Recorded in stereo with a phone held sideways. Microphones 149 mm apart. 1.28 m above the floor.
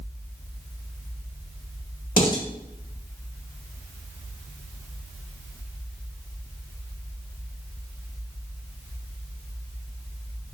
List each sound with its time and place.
2.2 s dishes clattering: 70° left (ahead or behind), 1.3 m